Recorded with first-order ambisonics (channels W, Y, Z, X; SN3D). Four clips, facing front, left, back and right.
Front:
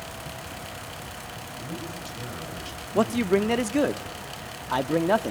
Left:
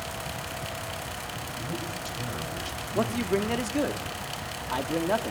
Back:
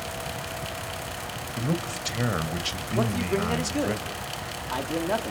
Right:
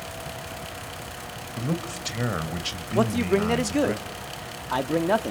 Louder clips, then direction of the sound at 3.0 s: Right 4 dB, front 5 dB; 40° right.